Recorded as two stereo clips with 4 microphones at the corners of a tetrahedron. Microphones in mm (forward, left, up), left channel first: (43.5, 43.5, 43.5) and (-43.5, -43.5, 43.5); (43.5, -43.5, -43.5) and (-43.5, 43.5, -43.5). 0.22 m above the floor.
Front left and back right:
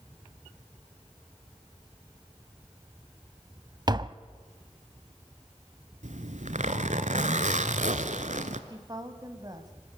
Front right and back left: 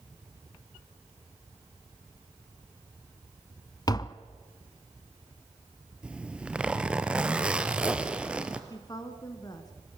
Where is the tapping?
90° right, 0.6 m.